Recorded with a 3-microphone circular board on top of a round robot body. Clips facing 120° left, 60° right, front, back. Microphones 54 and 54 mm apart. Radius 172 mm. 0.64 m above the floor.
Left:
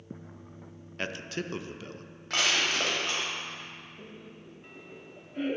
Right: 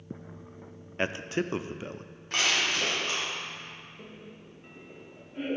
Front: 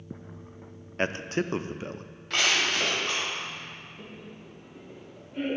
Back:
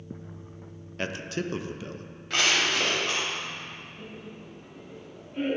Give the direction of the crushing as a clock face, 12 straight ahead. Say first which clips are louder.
Even, back 1 dB; 9 o'clock.